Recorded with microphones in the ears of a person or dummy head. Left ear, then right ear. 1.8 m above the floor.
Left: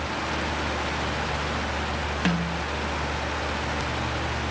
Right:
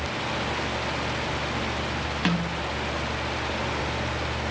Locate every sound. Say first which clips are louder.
2.2 s a snare drum: right 1 dB; centre (ahead or behind), 0.8 m